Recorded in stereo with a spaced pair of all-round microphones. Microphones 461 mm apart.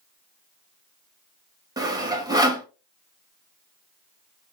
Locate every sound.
1.8 s sawing: 10° right (ahead or behind), 0.8 m